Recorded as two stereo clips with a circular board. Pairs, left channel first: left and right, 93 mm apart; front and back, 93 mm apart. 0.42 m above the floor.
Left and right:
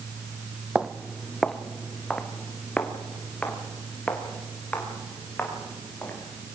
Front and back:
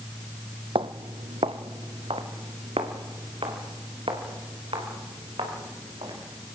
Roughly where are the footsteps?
Behind.